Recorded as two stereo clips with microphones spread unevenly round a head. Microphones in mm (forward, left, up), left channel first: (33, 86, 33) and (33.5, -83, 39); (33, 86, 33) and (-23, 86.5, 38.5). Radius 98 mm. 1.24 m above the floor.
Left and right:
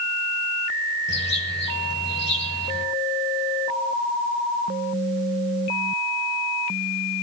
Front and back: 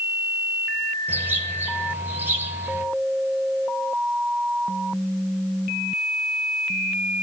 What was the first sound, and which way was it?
A bird, 125° left.